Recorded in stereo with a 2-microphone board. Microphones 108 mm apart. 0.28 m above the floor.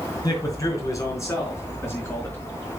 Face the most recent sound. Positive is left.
turn(degrees=20)  # may be behind; listen again after turning